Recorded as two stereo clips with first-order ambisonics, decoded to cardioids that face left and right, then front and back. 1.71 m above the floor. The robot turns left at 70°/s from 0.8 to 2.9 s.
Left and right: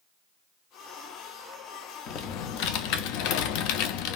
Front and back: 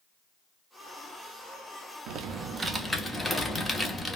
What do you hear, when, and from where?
2.1 s typing on a keyboard: 140° left, 0.5 m; by 4.2 s 85° left, 0.5 m